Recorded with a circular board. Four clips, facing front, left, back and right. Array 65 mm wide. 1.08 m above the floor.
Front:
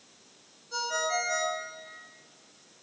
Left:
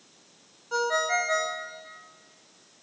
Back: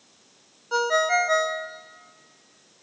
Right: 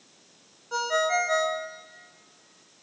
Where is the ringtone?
Straight behind, 0.6 m.